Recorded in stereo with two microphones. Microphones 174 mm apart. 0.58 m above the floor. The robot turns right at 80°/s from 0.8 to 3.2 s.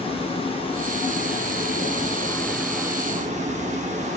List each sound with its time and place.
0.0 s running water: 35° left, 0.9 m; by 4.2 s 130° right, 0.9 m